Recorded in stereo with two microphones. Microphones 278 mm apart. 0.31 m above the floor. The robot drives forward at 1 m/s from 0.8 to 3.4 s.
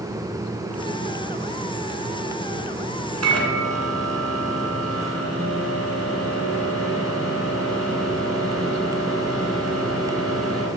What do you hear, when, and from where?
3.2 s a microwave: 65° right (ahead or behind), 2.5 m; by 10.7 s 60° right (ahead or behind), 2.5 m